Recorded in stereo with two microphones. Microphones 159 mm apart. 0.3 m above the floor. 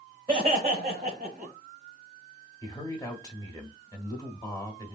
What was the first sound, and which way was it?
Laughter, 25° right (ahead or behind).